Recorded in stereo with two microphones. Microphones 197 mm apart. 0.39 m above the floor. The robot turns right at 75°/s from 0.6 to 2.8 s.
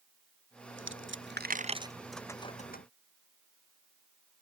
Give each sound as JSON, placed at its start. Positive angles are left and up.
{"t": 0.8, "sound": "a dropped coin", "side_deg": -80}